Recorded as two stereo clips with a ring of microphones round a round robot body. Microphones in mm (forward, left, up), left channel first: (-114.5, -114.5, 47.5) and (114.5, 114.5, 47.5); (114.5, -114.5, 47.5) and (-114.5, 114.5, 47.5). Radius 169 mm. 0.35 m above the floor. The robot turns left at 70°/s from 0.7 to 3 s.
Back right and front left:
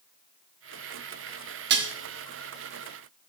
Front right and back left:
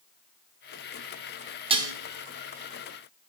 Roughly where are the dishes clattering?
Left.